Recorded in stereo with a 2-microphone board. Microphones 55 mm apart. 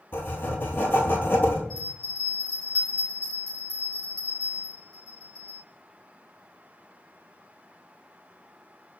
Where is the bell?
10° left (ahead or behind), 1.6 m.